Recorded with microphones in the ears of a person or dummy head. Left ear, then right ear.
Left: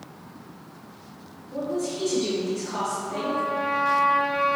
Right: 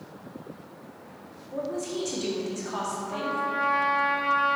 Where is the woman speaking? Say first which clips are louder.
Left 3 dB; 30° right (ahead or behind), 0.8 m.